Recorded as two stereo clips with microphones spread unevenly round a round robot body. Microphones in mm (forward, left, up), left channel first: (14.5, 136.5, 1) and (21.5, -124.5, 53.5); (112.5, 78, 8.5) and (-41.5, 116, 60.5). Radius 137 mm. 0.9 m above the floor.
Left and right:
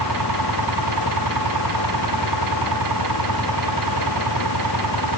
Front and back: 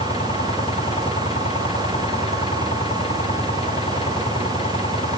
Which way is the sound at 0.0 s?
80° right.